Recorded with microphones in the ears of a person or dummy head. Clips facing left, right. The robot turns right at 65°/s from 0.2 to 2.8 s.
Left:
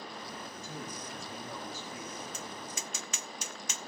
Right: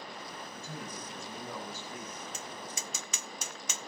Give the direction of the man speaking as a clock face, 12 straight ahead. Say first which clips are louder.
Right 1 dB; 5 o'clock.